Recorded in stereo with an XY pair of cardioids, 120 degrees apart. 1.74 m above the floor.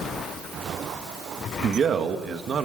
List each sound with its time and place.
1.6 s a man speaking: 45° right, 1.9 m